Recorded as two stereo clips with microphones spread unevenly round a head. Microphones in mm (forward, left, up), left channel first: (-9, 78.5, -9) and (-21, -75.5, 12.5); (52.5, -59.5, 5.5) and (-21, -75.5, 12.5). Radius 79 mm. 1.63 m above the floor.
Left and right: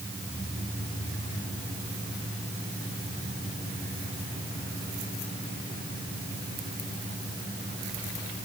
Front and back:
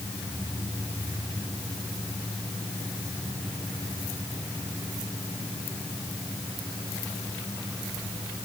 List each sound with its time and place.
Only background noise.